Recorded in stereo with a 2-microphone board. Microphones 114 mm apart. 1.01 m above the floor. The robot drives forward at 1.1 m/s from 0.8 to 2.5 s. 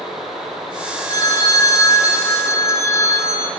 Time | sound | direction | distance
1.1 | a phone ringing | 35° left (ahead or behind) | 4.5 m